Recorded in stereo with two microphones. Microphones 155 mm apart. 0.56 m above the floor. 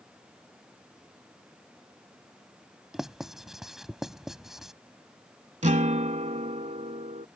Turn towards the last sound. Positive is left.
turn(degrees=-50)  # may be behind; listen again after turning